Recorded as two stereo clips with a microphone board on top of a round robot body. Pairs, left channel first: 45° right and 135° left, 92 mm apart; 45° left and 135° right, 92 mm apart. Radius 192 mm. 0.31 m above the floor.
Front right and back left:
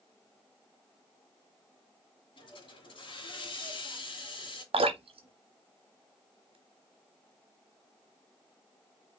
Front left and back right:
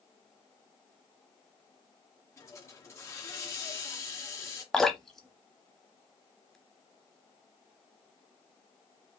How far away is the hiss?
About 2 m.